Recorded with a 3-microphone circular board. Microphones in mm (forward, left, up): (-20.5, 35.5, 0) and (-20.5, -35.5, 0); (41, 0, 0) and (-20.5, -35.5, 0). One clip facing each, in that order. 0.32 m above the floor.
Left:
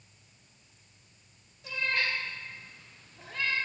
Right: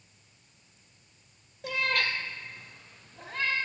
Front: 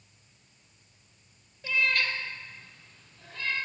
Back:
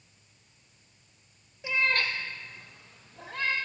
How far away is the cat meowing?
About 0.7 m.